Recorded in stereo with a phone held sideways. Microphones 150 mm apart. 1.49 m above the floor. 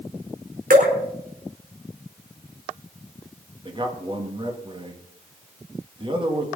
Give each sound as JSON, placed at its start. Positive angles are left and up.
{"t": 0.7, "sound": "dripping", "side_deg": -80, "distance_m": 4.5}
{"t": 3.6, "sound": "a man speaking", "side_deg": -35, "distance_m": 2.5}